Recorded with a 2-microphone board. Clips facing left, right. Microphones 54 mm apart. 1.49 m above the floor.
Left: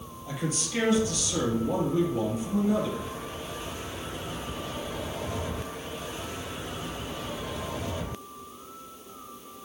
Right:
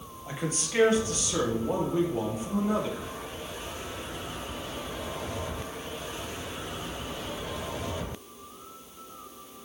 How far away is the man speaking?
About 2.0 m.